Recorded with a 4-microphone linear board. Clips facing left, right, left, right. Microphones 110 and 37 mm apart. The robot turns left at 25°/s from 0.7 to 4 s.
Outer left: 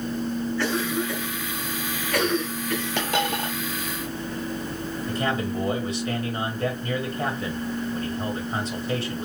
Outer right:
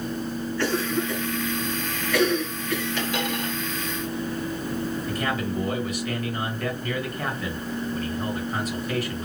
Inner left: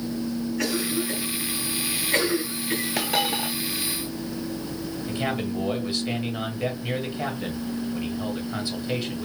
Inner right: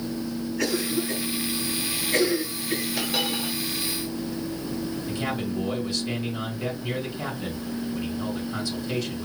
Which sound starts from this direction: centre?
A cough, at 0.6 s.